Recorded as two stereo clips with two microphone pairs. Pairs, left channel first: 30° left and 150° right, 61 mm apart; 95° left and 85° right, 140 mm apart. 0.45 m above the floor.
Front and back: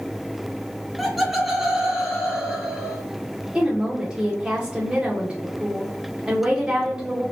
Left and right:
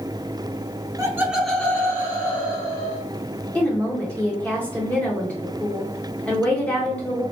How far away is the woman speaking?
About 0.9 m.